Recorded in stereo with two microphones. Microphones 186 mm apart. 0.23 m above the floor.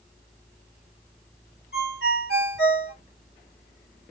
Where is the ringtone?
75° right (ahead or behind), 1.6 m.